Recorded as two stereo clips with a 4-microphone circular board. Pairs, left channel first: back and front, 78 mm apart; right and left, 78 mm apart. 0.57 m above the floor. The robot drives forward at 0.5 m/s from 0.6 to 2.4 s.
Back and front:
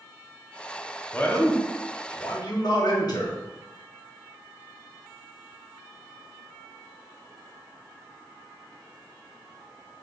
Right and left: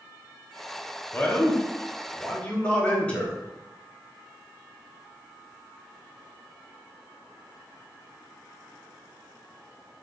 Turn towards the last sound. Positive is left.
turn(degrees=-165)